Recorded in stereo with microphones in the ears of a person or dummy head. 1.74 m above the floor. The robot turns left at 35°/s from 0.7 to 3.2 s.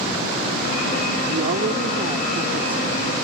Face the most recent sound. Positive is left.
turn(degrees=170)